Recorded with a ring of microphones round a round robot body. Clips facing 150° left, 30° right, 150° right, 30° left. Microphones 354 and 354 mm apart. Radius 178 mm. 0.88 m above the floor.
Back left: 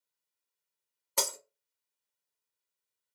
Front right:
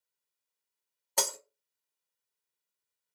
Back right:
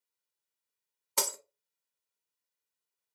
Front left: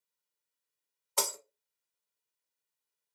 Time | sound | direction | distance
1.2 | breaking glass | 140° right | 0.8 m